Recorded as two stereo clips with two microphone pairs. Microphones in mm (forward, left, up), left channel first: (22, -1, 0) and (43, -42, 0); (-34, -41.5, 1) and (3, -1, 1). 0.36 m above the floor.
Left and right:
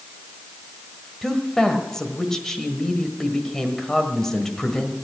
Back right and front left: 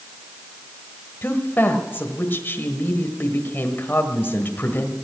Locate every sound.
1.2 s a woman speaking: 170° right, 1.3 m